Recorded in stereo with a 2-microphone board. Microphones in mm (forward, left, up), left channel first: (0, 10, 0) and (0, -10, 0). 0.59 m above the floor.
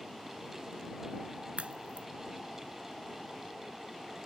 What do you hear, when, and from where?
1.6 s a crack: 85° right